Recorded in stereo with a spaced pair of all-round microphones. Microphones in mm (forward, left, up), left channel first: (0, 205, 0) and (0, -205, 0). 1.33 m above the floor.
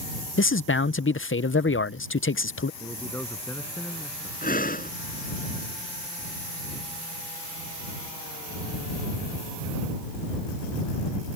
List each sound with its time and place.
0.4 s a man speaking: 30° left (ahead or behind)
2.8 s a man speaking: 5° left (ahead or behind)
4.4 s breathing: 20° left (ahead or behind)